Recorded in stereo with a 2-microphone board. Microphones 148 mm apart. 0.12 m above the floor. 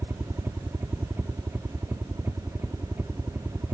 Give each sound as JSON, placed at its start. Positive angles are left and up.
{"t": 0.0, "sound": "a helicopter", "side_deg": -15}